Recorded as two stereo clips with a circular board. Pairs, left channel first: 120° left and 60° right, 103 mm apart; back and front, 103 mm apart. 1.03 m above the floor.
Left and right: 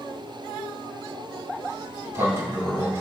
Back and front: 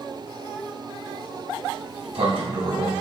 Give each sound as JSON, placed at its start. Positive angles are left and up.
{"t": 1.7, "sound": "a sliding door", "azimuth_deg": 0, "distance_m": 3.0}